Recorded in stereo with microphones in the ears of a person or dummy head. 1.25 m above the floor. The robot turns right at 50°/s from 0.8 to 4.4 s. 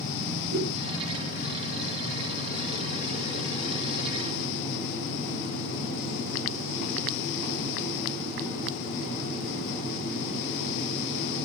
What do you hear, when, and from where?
0.5 s a whoosh: 70° right (ahead or behind), 7.5 m